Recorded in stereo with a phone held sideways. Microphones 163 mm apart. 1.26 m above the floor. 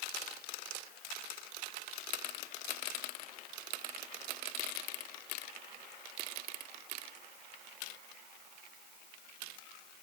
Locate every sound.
Only background noise.